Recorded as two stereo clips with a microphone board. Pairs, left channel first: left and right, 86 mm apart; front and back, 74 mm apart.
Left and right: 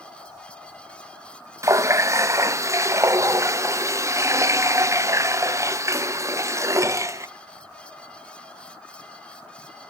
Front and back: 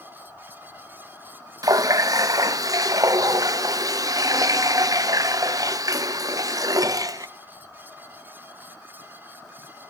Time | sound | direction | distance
1.6 | a running tap | 145° right | 0.6 m